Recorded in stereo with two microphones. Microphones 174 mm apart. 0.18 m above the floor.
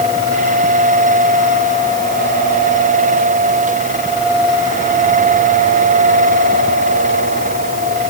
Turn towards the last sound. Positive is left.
No sound to turn to.